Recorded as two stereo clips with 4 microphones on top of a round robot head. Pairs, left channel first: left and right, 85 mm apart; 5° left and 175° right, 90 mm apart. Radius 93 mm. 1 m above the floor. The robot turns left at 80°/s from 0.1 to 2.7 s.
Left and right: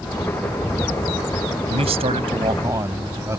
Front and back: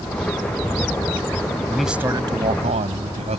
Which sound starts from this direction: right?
A man speaking, at 1.7 s.